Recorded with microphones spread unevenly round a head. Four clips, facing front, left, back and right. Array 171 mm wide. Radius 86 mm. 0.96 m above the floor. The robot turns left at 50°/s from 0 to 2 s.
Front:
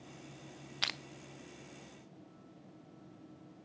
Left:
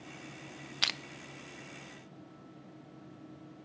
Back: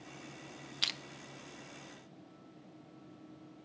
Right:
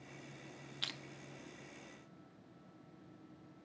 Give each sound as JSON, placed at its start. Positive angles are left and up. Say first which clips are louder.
{"t": 0.8, "sound": "crushing", "louder": "left 11 dB, front 4 dB", "azimuth_deg": 60, "distance_m": 0.6}